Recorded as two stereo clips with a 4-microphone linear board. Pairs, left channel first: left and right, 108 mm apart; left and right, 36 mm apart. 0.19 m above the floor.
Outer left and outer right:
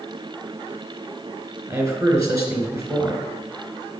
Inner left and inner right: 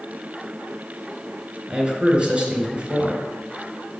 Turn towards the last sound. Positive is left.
turn(degrees=-30)  # may be behind; listen again after turning